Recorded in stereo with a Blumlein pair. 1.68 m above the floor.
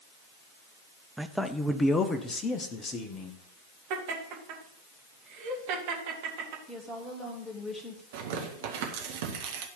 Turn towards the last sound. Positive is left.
turn(degrees=-55)